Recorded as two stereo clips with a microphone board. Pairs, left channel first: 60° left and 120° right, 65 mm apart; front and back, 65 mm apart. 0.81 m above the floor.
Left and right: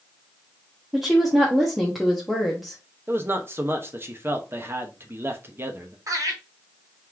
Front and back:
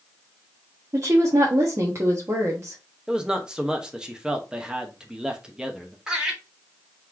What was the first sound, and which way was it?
A woman speaking, 150° left.